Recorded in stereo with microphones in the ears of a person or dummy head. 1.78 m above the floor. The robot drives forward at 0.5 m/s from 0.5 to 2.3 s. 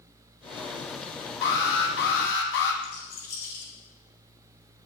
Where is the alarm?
65° left (ahead or behind), 2.5 m; by 2.7 s 70° left (ahead or behind), 2 m.